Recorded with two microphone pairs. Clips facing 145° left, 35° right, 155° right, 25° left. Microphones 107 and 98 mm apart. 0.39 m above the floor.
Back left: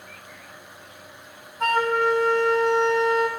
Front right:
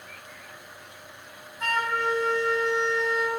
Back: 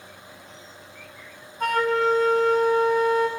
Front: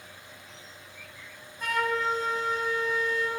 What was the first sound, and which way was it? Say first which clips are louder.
A flute: back left 6 dB, back 7 dB; straight behind.